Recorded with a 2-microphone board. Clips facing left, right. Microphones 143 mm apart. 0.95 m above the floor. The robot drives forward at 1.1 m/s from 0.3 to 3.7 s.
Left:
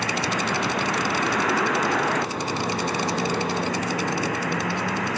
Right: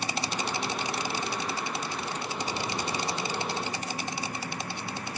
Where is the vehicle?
75° left (ahead or behind); by 5.2 s 80° left.